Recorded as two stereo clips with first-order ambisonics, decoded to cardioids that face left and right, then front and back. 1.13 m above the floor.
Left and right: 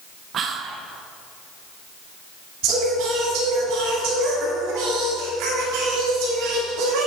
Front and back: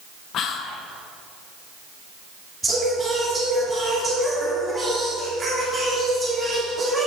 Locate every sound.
0.3 s whispering: 40° right, 0.5 m
2.6 s singing: 100° right, 2.5 m